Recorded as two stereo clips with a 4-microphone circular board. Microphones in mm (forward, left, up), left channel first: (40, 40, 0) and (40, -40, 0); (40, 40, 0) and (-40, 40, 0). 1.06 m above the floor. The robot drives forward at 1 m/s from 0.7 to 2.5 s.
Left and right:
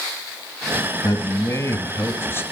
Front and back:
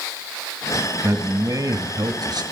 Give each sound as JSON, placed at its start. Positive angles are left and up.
{"t": 1.0, "sound": "a man speaking", "azimuth_deg": 125, "distance_m": 1.8}